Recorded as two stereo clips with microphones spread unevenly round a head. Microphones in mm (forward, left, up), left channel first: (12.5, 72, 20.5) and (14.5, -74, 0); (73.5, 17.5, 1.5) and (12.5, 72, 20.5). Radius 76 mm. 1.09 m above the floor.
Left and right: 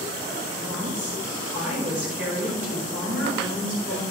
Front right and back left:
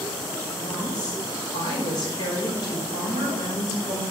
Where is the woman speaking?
10° right, 5 m.